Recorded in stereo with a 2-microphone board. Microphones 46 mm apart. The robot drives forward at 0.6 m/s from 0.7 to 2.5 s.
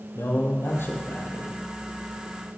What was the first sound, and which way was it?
A man speaking, 55° left (ahead or behind).